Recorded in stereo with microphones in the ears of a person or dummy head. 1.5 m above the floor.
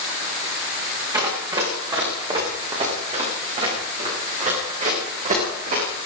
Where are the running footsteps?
15° right (ahead or behind), 9 m; by 6.1 s 40° right (ahead or behind), 13.5 m.